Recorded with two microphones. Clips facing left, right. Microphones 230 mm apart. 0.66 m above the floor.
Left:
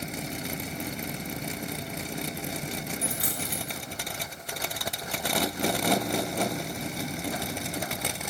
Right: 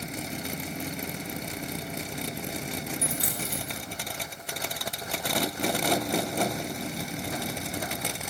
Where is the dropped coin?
25° right (ahead or behind), 3.5 m.